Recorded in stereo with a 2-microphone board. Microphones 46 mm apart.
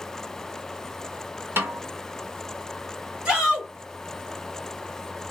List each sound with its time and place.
1.6 s a snare drum: 60° right (ahead or behind), 1.3 m
3.2 s a shout: 20° right (ahead or behind), 2.5 m